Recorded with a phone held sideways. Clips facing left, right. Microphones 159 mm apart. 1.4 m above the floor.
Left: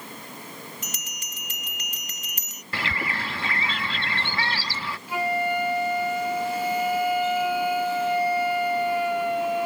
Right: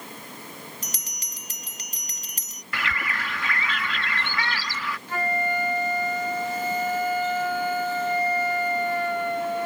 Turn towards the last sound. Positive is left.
turn(degrees=10)  # may be behind; listen again after turning